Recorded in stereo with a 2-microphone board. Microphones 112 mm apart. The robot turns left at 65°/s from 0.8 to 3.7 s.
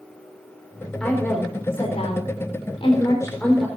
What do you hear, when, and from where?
1.0 s a woman speaking: 175° left, 5 m; by 3.7 s straight ahead, 5 m